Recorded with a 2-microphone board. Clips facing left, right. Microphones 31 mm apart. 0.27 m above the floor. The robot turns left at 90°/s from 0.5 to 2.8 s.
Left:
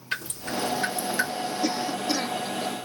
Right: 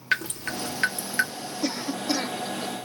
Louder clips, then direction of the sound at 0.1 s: Right 3 dB; 85° right.